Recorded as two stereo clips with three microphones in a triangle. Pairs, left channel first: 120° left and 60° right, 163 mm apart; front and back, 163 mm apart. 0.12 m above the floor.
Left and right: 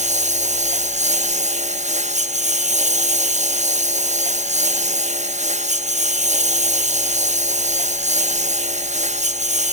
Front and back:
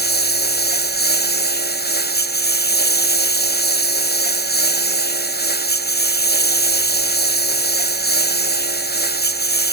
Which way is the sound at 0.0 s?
15° right.